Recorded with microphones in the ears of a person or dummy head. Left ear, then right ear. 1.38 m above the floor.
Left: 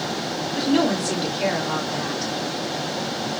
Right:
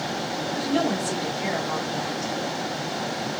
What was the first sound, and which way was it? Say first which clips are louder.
A woman speaking: left 4 dB; 30° left (ahead or behind).